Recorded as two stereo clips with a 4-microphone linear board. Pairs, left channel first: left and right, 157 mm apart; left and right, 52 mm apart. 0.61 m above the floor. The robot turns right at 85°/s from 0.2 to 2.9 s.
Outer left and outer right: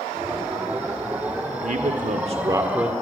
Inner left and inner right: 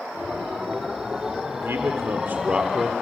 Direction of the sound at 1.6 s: 105° right.